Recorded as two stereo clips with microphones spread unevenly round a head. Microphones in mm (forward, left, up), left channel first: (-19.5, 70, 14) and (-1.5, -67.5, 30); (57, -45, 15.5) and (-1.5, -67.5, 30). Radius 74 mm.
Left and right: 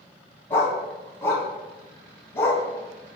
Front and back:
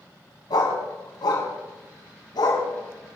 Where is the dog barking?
20° left, 3.5 m.